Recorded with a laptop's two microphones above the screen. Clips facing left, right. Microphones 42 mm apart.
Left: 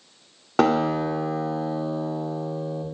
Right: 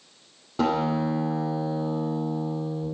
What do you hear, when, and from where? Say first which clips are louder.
0.6 s a guitar: left 4 dB; 90° left, 1.9 m